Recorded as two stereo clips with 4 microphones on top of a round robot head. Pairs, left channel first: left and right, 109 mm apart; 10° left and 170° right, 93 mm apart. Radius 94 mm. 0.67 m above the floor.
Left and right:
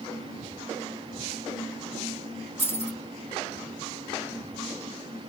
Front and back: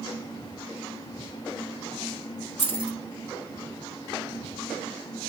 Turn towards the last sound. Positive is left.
turn(degrees=-140)